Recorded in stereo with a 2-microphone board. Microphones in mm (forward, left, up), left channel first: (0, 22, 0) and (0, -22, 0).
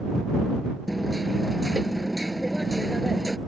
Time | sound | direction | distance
0.9 | hammering | centre (ahead or behind) | ?